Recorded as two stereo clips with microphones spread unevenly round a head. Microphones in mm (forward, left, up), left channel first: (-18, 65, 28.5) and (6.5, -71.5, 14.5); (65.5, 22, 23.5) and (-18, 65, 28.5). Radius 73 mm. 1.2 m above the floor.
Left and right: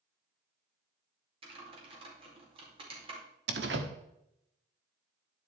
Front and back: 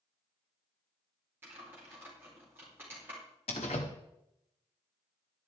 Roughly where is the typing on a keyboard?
Behind right.